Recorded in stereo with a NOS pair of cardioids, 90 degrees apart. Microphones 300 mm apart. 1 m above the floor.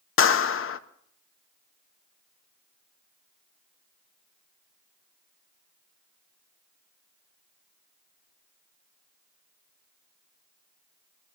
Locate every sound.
0.2 s a clap: 45° left, 0.8 m